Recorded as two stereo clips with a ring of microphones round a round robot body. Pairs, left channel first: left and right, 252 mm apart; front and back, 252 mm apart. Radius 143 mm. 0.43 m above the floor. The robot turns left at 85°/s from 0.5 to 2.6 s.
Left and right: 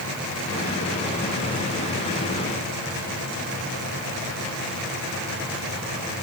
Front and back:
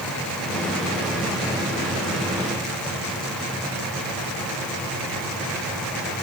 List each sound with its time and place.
Only background noise.